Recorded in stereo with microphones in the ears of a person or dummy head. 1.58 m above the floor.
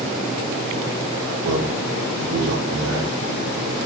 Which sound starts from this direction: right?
A man speaking, at 1.4 s.